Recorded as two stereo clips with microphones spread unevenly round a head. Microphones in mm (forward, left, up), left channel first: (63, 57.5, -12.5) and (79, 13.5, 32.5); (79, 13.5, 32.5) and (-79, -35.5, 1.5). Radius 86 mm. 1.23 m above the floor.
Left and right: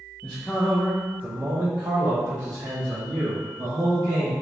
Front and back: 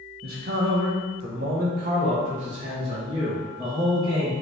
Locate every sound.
0.2 s a man speaking: 165° left, 1.2 m; by 4.3 s 95° right, 3 m